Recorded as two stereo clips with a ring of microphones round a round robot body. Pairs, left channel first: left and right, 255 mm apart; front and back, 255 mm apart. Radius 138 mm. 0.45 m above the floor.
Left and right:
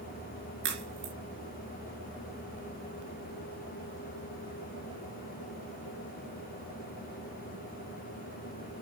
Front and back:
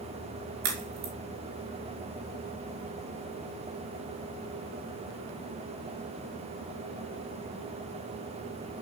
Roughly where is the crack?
Behind right.